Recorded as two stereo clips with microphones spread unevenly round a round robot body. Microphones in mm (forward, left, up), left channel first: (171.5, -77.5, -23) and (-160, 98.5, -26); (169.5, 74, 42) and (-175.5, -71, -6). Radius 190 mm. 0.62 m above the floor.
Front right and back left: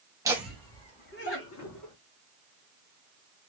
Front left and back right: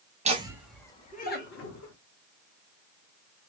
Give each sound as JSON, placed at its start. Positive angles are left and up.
{"t": 0.2, "sound": "laughter", "azimuth_deg": -140, "distance_m": 0.9}